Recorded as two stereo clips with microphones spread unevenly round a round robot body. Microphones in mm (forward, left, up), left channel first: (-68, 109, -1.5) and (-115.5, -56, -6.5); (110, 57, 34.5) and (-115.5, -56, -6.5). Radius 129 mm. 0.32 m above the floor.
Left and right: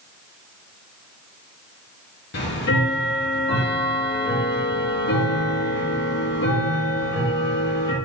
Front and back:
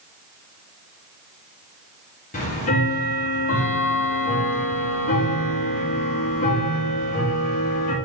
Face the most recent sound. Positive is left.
turn(degrees=85)